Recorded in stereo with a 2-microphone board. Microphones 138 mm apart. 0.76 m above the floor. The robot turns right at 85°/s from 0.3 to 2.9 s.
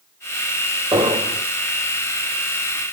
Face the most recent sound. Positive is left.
turn(degrees=25)